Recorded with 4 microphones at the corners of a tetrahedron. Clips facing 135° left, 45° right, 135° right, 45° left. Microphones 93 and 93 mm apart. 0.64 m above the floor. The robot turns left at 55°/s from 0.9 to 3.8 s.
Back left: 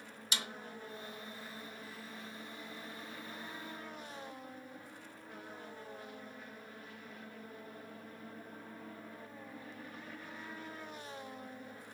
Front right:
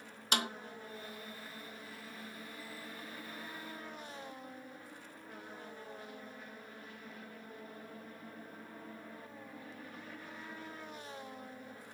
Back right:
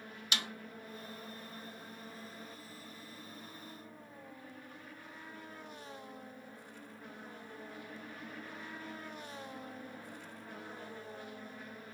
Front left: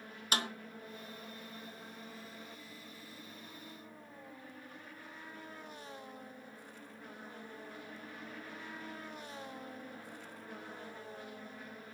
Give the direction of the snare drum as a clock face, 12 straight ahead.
12 o'clock.